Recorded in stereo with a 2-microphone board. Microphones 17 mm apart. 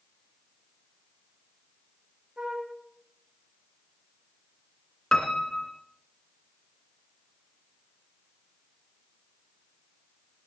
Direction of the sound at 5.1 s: 45° left (ahead or behind).